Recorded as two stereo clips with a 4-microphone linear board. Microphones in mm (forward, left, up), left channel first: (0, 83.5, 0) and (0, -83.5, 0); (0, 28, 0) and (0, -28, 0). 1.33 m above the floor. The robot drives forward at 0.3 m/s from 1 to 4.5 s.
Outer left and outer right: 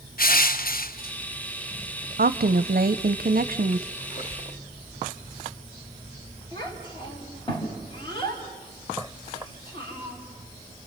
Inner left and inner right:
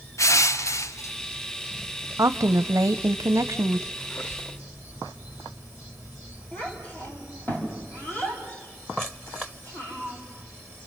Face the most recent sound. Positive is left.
turn(degrees=30)  # may be behind; listen again after turning